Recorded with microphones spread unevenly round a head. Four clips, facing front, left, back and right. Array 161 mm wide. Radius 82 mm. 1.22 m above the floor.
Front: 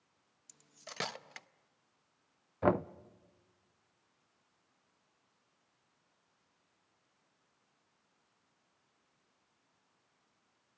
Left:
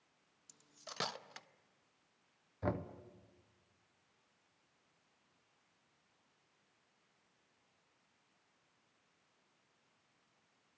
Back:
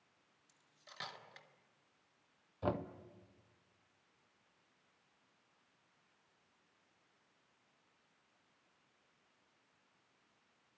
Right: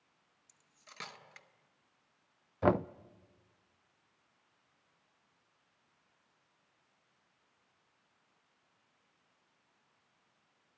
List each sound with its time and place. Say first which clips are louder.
0.5 s cutlery clinking: left 7 dB, front 9 dB; 30° left, 0.8 m
2.6 s knocking: right 10 dB, front 8 dB; 45° right, 0.5 m